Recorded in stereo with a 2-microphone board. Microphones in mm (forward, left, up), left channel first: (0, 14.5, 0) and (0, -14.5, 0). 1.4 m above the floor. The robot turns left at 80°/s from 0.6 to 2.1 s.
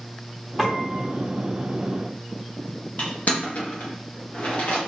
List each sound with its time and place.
0.6 s a piano: 5° right, 0.8 m; by 1.1 s 45° right, 0.8 m
3.0 s crushing: 55° left (ahead or behind), 1.0 m